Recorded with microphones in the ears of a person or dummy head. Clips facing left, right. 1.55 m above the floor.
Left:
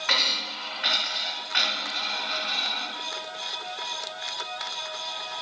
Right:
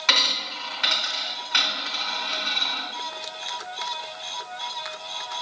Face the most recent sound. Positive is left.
turn(degrees=-55)  # may be behind; listen again after turning